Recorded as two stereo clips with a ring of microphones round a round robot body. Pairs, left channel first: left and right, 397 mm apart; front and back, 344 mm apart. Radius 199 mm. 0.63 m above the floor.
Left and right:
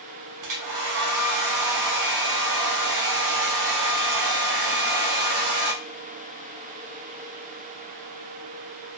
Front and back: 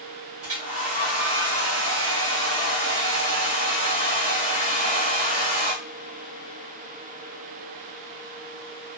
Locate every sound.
0.4 s a hair dryer: 130° right, 0.7 m